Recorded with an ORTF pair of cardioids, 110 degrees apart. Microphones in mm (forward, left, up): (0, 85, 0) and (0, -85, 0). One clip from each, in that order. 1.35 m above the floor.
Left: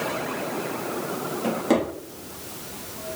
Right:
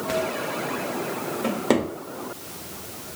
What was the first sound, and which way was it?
A drawer, 30° right.